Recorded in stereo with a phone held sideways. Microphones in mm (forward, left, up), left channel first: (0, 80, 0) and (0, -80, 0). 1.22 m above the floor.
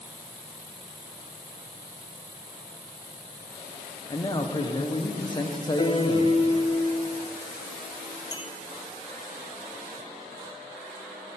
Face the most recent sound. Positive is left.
turn(degrees=-15)  # may be behind; listen again after turning